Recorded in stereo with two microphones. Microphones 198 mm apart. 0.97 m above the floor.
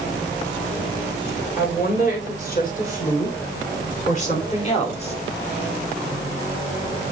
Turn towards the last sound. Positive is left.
turn(degrees=30)  # may be behind; listen again after turning